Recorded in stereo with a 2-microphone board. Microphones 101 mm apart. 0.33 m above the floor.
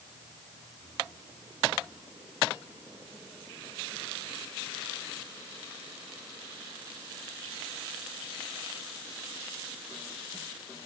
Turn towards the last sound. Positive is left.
No sound to turn to.